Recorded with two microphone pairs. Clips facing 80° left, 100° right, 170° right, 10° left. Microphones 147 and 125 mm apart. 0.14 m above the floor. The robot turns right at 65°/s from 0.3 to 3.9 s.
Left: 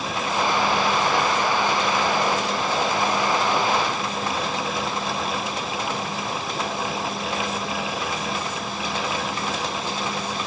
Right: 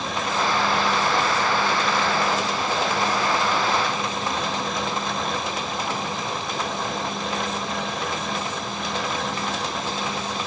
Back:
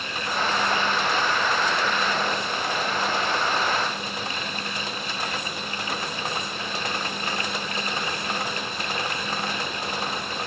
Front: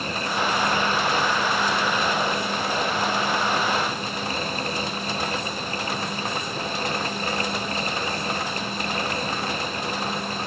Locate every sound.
Only background noise.